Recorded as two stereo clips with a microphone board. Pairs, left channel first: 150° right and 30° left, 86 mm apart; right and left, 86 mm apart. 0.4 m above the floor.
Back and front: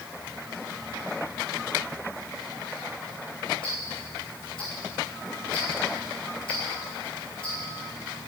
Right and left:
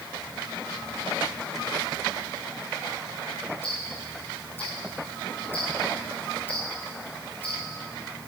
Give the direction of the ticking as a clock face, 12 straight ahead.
5 o'clock.